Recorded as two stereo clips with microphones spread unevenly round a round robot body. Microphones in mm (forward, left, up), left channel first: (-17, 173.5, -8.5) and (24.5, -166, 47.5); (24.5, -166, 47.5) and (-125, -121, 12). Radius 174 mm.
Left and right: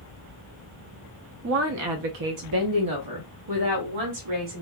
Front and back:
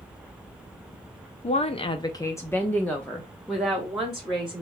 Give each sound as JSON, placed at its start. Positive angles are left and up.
{"t": 1.4, "sound": "a woman speaking", "azimuth_deg": -40, "distance_m": 0.5}